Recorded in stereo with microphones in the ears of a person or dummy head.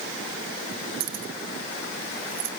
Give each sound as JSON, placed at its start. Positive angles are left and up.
{"t": 1.0, "sound": "keys jangling", "side_deg": -55, "distance_m": 1.5}